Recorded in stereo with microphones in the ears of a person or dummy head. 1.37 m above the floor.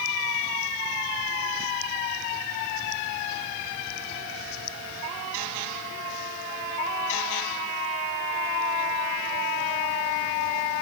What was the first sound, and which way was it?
Only background noise.